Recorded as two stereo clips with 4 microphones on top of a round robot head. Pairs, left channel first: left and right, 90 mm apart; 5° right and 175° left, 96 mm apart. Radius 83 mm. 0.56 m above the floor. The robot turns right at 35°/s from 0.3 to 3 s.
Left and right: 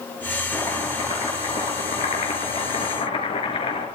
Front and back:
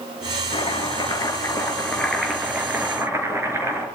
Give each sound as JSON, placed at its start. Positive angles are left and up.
{"t": 0.5, "sound": "chopping", "azimuth_deg": 20, "distance_m": 6.0}